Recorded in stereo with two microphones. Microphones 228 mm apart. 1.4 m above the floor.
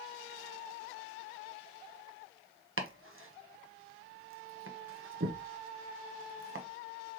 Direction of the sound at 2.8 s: 65° right (ahead or behind).